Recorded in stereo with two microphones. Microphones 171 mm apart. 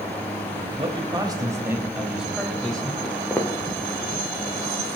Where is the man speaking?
35° right (ahead or behind), 1.3 m; by 2.9 s 5° left (ahead or behind), 1.7 m.